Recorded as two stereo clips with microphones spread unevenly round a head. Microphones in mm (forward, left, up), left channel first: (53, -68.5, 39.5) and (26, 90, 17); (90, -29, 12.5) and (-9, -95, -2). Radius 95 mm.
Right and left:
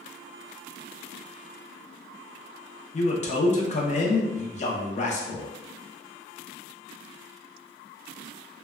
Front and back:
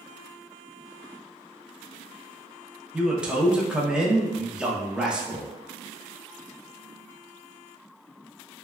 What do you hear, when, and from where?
2.9 s a man speaking: 80° right, 0.6 m